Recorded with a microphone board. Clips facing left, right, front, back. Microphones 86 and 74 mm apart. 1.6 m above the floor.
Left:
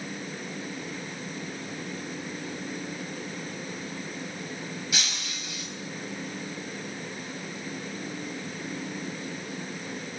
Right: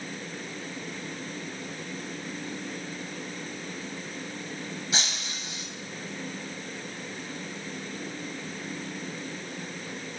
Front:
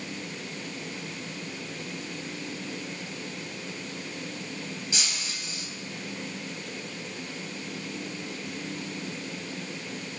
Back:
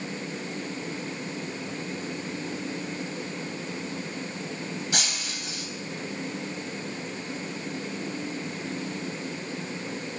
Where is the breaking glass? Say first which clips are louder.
Right 1 dB, back 3 dB; 145° right, 5 m.